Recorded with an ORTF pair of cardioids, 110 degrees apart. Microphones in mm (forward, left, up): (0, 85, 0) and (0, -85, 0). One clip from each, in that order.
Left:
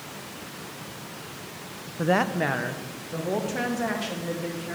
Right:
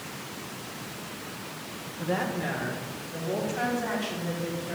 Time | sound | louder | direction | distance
2.0 | a woman speaking | left 6 dB | 60° left | 0.6 m